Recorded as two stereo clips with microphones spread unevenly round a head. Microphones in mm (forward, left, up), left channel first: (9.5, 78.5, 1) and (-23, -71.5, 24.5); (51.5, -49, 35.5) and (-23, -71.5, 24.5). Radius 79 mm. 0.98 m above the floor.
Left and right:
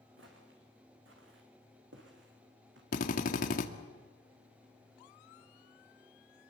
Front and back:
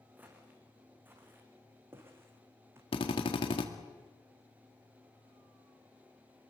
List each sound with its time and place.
0.2 s footsteps: 95° right, 5.5 m; by 2.8 s 105° right, 4.5 m
2.9 s a drill: 45° left, 1.9 m